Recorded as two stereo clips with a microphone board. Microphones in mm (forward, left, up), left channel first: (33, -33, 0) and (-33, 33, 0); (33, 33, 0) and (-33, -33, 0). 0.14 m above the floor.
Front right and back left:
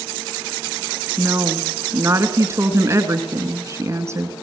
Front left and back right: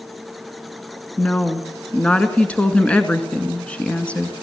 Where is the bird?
No bird in this recording.